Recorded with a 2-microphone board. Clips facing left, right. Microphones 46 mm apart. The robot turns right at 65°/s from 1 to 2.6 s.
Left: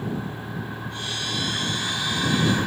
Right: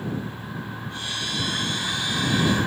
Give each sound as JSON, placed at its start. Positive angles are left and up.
{"t": 0.0, "sound": "a vehicle", "azimuth_deg": 80}